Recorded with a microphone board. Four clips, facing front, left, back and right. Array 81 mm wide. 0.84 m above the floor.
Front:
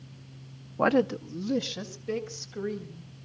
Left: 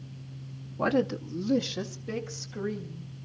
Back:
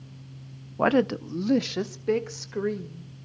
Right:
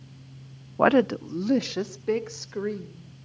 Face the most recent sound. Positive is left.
turn(degrees=-140)